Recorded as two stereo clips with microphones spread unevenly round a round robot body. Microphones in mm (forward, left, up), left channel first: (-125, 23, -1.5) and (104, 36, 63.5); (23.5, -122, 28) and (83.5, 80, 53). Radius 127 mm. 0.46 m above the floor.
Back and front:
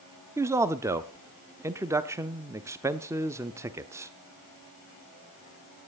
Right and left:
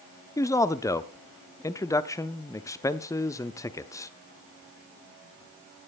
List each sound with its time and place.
0.4 s a man speaking: 100° right, 0.7 m